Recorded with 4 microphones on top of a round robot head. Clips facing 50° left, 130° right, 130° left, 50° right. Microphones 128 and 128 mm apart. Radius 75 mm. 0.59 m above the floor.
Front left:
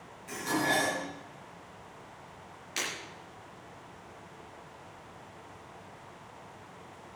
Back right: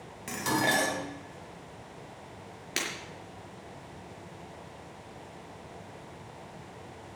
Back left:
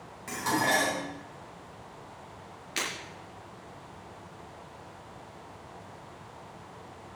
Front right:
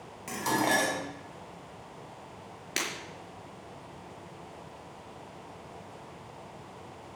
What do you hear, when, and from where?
0.3 s dishes clattering: 125° right, 3 m
2.8 s breaking glass: 95° right, 5 m